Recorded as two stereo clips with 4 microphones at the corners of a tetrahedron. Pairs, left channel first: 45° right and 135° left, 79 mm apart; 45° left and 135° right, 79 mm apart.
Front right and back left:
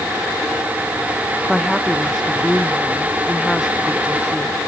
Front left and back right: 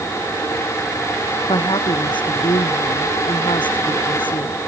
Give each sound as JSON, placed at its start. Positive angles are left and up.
{"t": 1.5, "sound": "a woman speaking", "azimuth_deg": 45}